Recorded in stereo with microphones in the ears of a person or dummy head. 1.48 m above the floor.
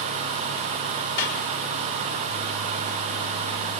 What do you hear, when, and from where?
1.2 s a clap: 75° left (ahead or behind), 6.5 m